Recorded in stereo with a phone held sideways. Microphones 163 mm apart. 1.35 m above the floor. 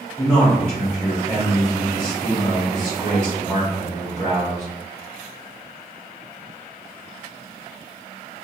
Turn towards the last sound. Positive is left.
turn(degrees=10)  # may be behind; listen again after turning